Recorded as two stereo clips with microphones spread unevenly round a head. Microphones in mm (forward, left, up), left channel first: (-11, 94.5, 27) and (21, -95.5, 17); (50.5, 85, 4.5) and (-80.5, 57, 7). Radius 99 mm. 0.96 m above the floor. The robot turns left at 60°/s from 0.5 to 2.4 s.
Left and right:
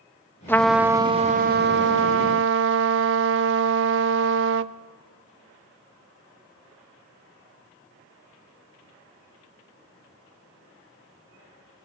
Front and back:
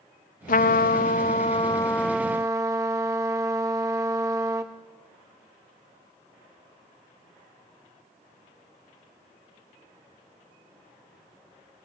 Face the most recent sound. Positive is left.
turn(degrees=-95)